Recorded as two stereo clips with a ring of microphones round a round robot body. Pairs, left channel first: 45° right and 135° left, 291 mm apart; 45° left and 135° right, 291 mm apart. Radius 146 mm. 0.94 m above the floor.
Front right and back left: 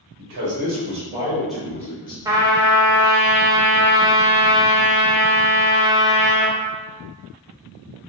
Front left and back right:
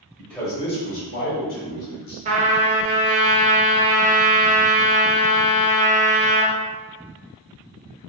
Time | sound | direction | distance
0.2 | a man speaking | 130° left | 1.0 m
2.2 | a trumpet | 165° right | 0.6 m